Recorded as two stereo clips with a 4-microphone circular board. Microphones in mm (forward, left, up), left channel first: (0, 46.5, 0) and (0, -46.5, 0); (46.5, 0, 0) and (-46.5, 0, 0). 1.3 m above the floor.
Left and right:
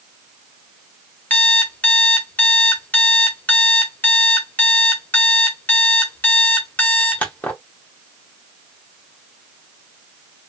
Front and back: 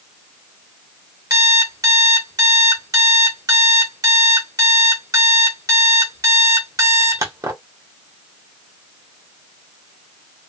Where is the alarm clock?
155° left, 1.1 m.